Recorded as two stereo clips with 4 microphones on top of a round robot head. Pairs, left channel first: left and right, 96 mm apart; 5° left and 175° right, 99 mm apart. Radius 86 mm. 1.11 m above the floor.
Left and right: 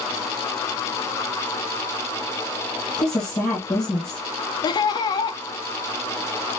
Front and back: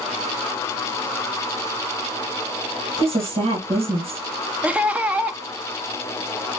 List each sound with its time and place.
3.0 s a woman speaking: 175° left, 1.3 m
4.6 s laughter: 110° left, 0.8 m